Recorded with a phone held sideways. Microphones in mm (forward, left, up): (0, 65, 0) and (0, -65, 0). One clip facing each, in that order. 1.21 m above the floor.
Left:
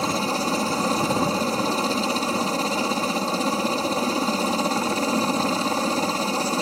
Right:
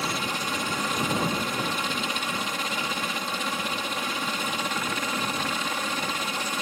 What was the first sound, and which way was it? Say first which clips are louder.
A helicopter: left 7 dB; 35° left (ahead or behind).